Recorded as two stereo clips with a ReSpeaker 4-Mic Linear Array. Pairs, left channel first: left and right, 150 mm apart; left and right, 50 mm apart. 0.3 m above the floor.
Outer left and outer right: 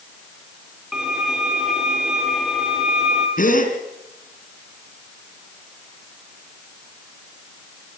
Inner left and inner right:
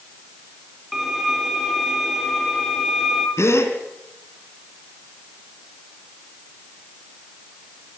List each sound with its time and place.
0.9 s a violin: 5° right (ahead or behind), 3.5 m
3.4 s a gasp: 70° left (ahead or behind), 3 m